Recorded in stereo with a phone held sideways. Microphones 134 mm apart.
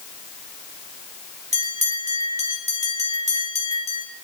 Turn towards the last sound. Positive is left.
turn(degrees=-55)  # may be behind; listen again after turning